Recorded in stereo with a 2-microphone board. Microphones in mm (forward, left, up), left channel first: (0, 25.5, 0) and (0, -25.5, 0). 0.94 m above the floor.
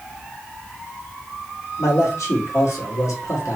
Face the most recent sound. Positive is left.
turn(degrees=80)